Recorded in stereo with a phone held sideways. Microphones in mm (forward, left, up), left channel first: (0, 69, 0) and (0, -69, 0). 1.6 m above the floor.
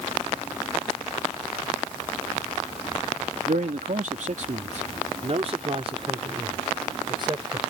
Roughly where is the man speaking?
Right.